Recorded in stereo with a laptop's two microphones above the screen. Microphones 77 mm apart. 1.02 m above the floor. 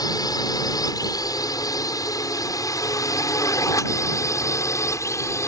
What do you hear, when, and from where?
0.0 s a drone: 55° left (ahead or behind); by 5.5 s 40° left (ahead or behind)